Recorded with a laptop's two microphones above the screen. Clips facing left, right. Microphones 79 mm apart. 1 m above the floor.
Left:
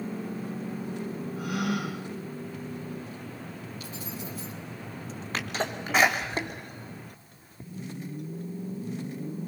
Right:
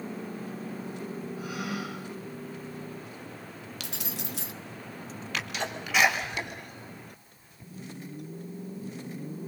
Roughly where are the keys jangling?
Right.